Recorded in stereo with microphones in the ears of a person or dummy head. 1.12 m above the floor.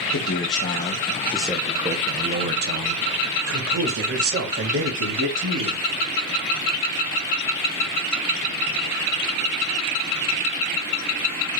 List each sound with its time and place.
0.1 s a man speaking: 55° left (ahead or behind), 0.8 m; by 5.9 s 80° right, 2.5 m